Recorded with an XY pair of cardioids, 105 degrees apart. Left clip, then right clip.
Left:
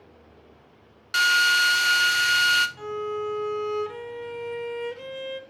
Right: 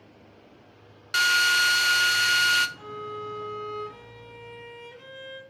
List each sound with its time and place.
1.1 s a drill: 5° right, 0.6 m
2.8 s a violin: 70° left, 1.2 m